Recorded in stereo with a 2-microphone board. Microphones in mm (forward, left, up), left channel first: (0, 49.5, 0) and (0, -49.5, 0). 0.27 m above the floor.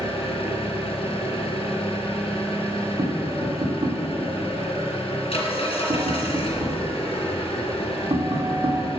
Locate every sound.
0.0 s an engine running: 80° left, 2 m
3.0 s tapping: 75° right (ahead or behind), 2.0 m